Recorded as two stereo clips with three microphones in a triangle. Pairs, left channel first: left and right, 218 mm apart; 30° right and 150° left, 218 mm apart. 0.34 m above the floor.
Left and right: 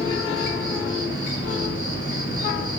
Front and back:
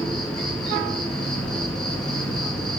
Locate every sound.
0.0 s an insect: 55° left, 1.8 m